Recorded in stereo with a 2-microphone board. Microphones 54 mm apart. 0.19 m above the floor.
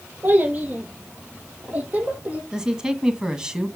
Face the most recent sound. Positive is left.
turn(degrees=-15)  # may be behind; listen again after turning